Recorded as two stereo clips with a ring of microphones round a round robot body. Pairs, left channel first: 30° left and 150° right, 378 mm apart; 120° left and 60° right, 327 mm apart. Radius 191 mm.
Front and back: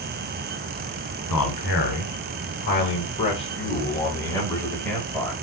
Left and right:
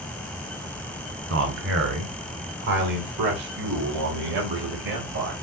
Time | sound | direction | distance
1.3 | a man speaking | 20° right | 2.5 m